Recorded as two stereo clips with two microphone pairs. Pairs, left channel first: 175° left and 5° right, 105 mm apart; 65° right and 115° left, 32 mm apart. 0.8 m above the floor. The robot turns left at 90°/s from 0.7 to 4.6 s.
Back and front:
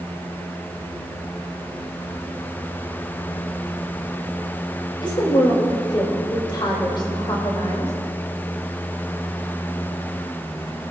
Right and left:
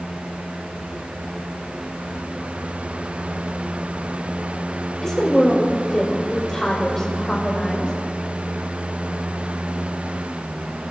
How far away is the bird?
I don't hear a bird.